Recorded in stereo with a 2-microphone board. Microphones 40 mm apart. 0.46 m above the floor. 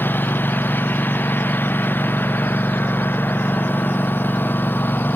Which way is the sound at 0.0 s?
60° left (ahead or behind).